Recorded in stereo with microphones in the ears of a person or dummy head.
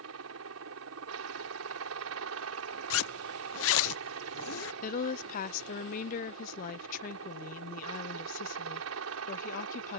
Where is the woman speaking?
50° left (ahead or behind).